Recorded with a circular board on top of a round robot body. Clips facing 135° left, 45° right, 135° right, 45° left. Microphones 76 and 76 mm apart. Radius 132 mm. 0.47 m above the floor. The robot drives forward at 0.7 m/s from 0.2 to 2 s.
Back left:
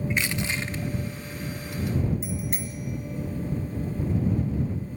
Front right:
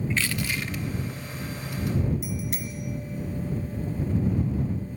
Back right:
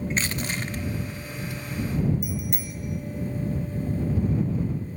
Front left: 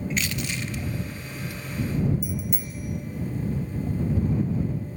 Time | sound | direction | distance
0.1 | crushing | 165° right | 0.8 m
2.2 | a bicycle bell | 170° right | 3 m